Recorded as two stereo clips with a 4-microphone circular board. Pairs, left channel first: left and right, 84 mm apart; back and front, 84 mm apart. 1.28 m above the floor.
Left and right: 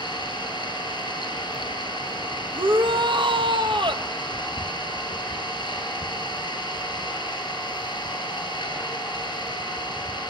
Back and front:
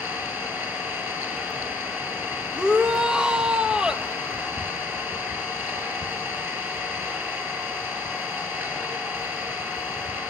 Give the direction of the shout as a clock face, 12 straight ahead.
3 o'clock.